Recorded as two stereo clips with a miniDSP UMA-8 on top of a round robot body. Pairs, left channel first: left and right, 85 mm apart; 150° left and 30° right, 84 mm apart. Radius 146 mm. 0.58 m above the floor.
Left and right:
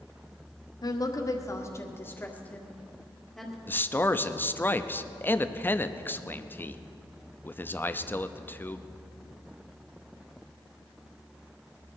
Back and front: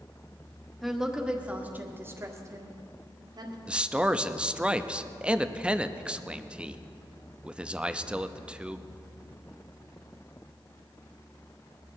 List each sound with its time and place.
0.8 s a woman speaking: 60° left, 1.7 m; by 3.6 s straight ahead, 2 m
3.7 s a man speaking: 40° left, 0.8 m